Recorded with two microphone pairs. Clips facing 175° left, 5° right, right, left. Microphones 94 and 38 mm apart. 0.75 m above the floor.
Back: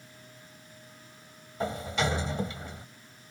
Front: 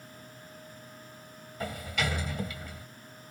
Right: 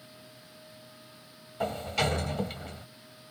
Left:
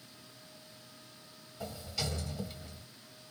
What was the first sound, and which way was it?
A sliding door, 125° right.